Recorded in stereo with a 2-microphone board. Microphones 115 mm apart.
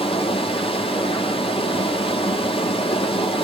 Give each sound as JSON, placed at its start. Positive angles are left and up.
{"t": 0.0, "sound": "running water", "side_deg": 55, "distance_m": 0.7}